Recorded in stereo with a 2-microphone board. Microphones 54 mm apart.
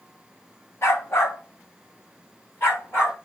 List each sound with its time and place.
0.8 s a dog barking: 65° left (ahead or behind), 2.5 m; by 3.2 s 40° left (ahead or behind), 4.5 m